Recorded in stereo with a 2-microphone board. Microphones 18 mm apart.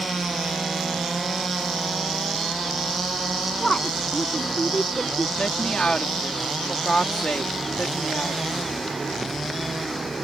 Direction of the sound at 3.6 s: 30° left (ahead or behind).